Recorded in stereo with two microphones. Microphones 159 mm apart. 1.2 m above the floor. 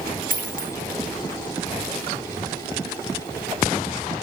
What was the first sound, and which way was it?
A dropped coin, 60° right (ahead or behind).